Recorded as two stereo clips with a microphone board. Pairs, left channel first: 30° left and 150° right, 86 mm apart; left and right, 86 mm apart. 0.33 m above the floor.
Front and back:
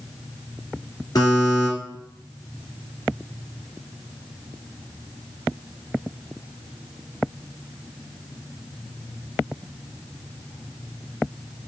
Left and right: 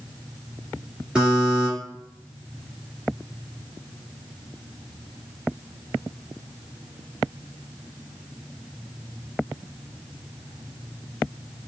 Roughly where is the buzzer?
Ahead.